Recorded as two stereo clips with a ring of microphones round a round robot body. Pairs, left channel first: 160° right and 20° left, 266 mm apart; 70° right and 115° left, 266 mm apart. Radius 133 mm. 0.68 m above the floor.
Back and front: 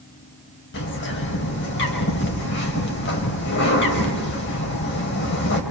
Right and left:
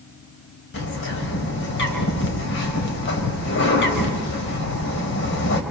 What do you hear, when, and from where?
0.7 s a bird: 110° right, 3.5 m